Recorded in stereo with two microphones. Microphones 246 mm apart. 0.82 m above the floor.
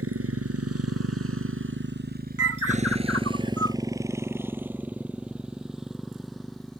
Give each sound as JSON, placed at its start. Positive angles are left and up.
{"t": 0.0, "sound": "a motorcycle", "side_deg": -70}
{"t": 2.4, "sound": "a bird", "side_deg": -70}